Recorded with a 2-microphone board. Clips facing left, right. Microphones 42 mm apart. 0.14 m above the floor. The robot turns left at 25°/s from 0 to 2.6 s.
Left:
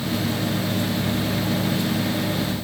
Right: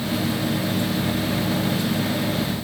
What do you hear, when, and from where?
Only background noise.